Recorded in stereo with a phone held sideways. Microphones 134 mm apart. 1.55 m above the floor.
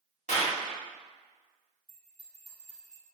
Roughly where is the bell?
Left.